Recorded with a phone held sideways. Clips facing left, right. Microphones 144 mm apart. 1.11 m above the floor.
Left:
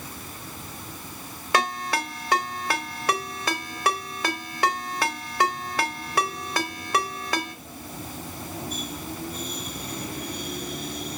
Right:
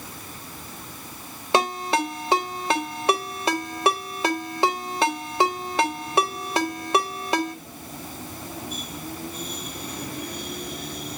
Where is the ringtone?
25° right (ahead or behind), 3 m.